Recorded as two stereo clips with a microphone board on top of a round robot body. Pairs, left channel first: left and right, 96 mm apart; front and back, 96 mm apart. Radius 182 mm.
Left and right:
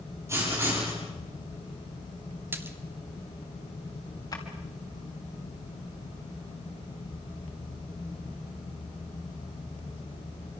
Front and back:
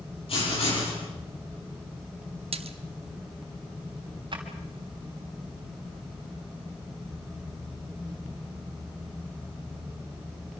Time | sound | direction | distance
0.3 | writing | 30° right | 10 m
2.5 | a splash | 160° right | 1.2 m
4.3 | a drawer | 140° left | 3.5 m